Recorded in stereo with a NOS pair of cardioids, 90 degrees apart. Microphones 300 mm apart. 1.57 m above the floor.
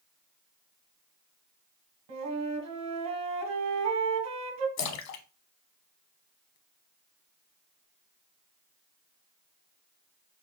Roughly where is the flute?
Ahead right.